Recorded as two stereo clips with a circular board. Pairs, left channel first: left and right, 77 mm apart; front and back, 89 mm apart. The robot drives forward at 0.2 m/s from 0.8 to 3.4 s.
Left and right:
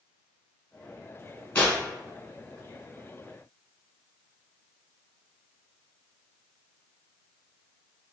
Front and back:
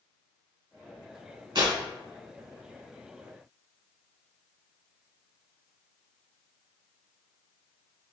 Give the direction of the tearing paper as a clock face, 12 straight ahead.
7 o'clock.